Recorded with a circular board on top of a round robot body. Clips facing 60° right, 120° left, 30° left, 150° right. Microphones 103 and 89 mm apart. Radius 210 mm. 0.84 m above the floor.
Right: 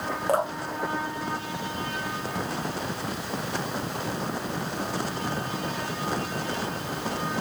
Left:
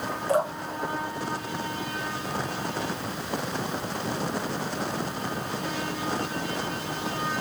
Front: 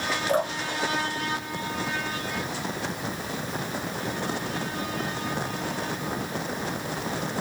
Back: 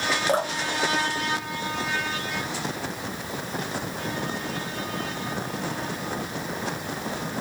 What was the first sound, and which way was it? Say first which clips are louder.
Dripping: left 1 dB, front 2 dB; 95° right.